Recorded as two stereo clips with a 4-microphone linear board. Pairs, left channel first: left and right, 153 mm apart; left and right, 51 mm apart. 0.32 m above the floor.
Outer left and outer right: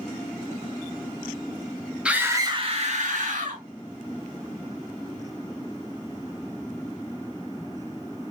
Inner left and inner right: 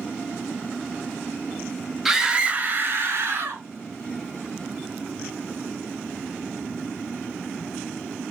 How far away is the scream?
About 1.5 m.